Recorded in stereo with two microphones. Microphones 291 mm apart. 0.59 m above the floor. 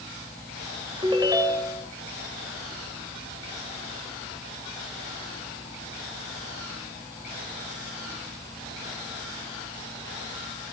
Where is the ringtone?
15° right (ahead or behind), 1.8 m.